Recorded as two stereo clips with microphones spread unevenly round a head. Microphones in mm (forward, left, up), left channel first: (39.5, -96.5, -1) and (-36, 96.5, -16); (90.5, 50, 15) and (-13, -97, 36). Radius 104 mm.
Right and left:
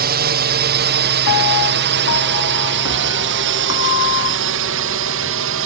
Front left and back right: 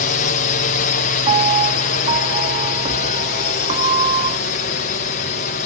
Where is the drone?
85° left; by 5.7 s 100° left.